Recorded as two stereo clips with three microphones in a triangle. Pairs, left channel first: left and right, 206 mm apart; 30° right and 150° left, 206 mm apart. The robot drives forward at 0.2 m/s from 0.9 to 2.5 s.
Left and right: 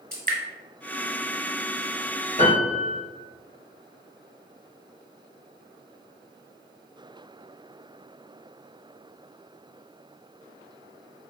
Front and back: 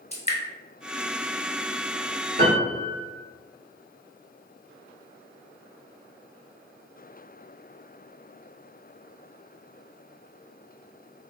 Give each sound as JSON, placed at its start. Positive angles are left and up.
{"t": 0.1, "sound": "dripping", "azimuth_deg": -75, "distance_m": 1.5}
{"t": 2.4, "sound": "a piano", "azimuth_deg": 130, "distance_m": 1.8}